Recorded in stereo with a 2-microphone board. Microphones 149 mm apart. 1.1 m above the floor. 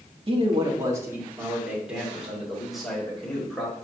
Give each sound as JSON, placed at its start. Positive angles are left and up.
{"t": 0.3, "sound": "a man speaking", "side_deg": -40, "distance_m": 1.4}